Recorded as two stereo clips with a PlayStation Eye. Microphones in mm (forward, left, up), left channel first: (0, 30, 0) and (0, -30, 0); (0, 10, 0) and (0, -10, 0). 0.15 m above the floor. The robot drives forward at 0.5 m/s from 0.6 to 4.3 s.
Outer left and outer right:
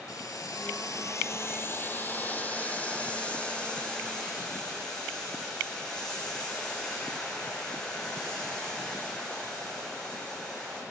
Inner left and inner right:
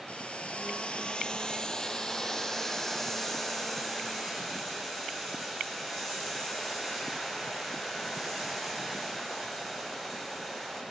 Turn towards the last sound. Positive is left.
turn(degrees=15)  # may be behind; listen again after turning